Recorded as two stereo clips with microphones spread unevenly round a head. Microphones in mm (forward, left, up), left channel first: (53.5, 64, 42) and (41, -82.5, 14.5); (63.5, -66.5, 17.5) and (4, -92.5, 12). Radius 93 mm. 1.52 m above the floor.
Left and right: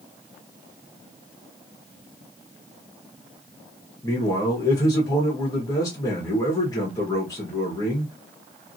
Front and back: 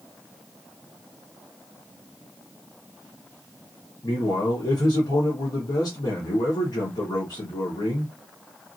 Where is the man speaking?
20° left, 1.1 m.